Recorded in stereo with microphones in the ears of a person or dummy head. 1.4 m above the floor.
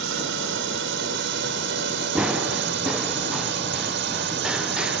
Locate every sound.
0.0 s a drone: 55° right (ahead or behind)
2.1 s running footsteps: 5° right (ahead or behind)